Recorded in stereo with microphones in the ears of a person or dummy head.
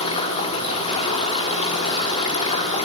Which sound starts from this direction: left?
Running water, at 0.0 s.